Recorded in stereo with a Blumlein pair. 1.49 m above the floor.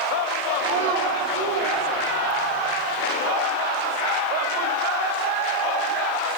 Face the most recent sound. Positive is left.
turn(degrees=-55)